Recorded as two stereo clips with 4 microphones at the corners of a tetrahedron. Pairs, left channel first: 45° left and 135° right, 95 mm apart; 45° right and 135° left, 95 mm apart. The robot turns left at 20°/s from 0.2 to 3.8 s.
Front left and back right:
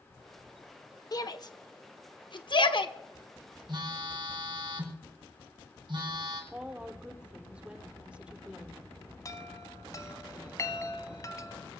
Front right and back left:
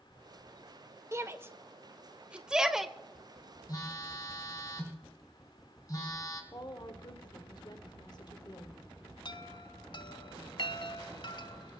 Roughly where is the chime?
Ahead.